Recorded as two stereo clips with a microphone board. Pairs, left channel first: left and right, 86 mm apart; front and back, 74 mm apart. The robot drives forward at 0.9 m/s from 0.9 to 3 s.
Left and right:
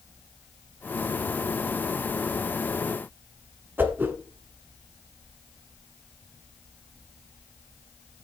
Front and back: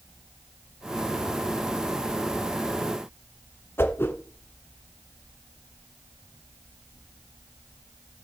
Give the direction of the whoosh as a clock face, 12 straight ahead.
1 o'clock.